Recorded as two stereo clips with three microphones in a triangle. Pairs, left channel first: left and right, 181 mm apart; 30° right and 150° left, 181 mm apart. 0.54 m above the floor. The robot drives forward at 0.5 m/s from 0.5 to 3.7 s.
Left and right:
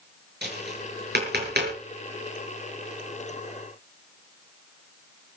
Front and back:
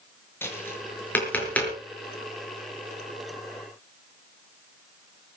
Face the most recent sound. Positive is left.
turn(degrees=-120)